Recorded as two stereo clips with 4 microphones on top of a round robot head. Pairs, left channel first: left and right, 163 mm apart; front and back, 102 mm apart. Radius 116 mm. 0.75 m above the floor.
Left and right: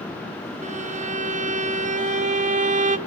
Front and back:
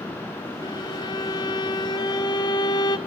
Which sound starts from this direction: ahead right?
A violin, at 0.6 s.